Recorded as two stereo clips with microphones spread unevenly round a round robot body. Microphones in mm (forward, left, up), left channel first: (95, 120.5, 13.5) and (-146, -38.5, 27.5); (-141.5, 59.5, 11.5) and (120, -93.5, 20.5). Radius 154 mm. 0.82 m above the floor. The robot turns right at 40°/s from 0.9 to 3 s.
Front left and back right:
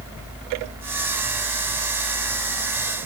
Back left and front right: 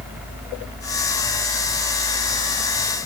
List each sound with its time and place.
Only background noise.